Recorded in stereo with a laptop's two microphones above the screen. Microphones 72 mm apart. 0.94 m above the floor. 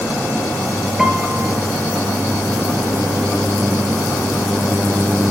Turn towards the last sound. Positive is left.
turn(degrees=-10)  # may be behind; listen again after turning